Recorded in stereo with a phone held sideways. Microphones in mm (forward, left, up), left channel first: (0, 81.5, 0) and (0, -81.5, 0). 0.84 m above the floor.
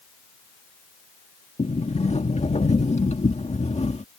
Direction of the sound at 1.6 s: 45° left (ahead or behind).